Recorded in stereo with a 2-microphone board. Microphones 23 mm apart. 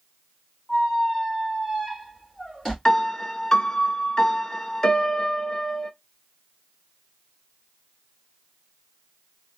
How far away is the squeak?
About 2.5 m.